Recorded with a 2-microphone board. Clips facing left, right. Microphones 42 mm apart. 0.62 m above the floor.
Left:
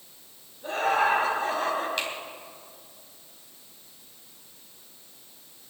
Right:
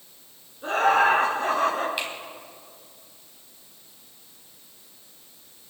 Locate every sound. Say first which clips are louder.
0.6 s laughter: right 4 dB; 70° right (ahead or behind), 6 m; by 1.9 s 80° right, 5.5 m
2.0 s a finger snap: even; 10° right (ahead or behind), 3.5 m